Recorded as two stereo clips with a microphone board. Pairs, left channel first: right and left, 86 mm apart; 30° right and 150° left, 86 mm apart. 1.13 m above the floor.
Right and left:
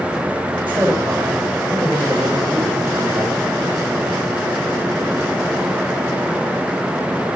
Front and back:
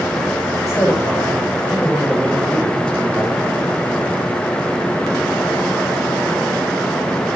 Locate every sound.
0.6 s a man speaking: 20° left, 5 m; by 3.5 s 55° left, 5.5 m